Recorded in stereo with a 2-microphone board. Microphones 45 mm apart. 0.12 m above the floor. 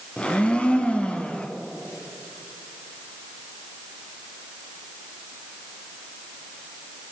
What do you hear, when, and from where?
0.2 s a blender: 25° left (ahead or behind), 1.2 m